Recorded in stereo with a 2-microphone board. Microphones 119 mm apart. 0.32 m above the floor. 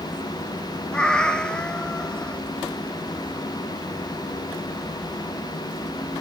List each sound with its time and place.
0.9 s a cat meowing: 10° left (ahead or behind), 0.5 m